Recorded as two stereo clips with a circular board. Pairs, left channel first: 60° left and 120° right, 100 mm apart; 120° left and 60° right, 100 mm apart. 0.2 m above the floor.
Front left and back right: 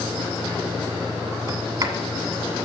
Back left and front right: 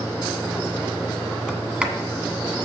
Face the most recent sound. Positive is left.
turn(degrees=-135)